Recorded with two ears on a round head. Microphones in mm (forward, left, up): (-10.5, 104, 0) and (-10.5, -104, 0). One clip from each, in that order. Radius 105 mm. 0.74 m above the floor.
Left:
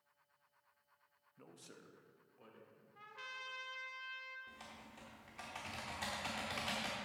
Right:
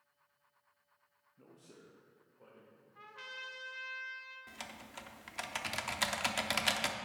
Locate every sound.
1.4 s a man speaking: 40° left (ahead or behind), 0.7 m; by 2.9 s 70° left (ahead or behind), 2.5 m
3.0 s a trumpet: centre (ahead or behind), 0.8 m
4.5 s typing on a keyboard: 55° right (ahead or behind), 0.7 m